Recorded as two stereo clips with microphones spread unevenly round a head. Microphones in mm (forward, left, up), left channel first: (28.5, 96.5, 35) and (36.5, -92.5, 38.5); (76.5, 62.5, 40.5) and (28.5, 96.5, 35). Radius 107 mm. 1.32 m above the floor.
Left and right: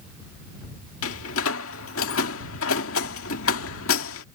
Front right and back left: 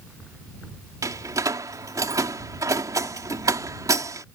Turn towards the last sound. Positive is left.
turn(degrees=120)